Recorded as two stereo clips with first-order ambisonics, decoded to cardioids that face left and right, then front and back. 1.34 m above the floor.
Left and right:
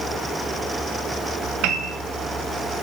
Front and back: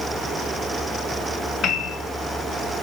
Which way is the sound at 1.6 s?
60° right.